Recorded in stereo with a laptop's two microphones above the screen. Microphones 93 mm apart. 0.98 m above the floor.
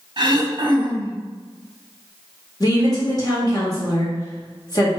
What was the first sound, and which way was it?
Throat clearing, 50° right (ahead or behind).